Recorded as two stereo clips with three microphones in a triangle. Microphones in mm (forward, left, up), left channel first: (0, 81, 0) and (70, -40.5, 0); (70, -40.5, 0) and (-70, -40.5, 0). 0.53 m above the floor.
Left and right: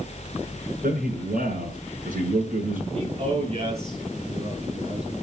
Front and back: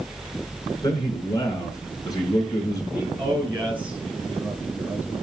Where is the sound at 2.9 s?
100° right, 9 m.